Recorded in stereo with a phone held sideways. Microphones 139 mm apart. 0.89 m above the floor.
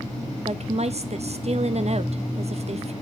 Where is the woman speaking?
55° right (ahead or behind), 0.7 m.